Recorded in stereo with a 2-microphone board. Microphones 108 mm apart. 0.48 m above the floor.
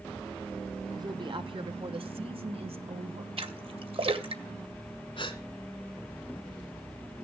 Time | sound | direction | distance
0.9 | a woman speaking | 40° right (ahead or behind) | 1.0 m
3.4 | a splash | 60° right (ahead or behind) | 1.9 m
5.2 | a gasp | 55° left (ahead or behind) | 2.5 m